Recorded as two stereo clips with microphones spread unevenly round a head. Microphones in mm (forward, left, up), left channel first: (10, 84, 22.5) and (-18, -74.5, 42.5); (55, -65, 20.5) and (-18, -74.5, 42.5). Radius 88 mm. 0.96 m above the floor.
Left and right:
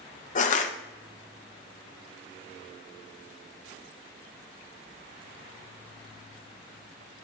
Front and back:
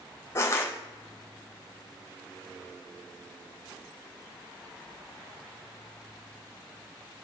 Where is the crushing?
50° left, 0.9 m.